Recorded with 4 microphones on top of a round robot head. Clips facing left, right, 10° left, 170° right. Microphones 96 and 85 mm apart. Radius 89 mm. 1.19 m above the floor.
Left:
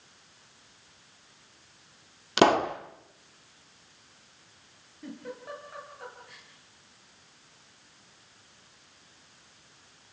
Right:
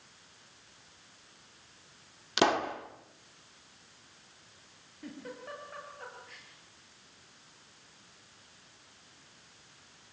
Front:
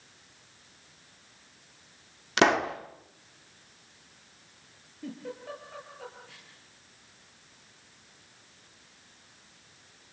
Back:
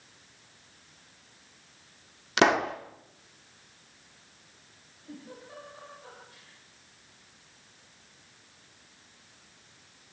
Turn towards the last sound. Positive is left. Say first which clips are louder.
# left 3 dB, front 7 dB
turn(degrees=5)